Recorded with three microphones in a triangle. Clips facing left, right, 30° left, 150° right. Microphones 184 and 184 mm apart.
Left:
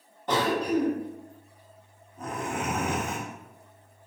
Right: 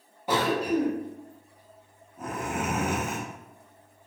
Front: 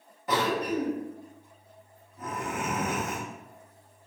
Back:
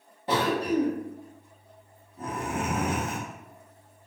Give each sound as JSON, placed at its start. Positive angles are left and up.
{"t": 0.3, "sound": "a cough", "azimuth_deg": -165, "distance_m": 0.6}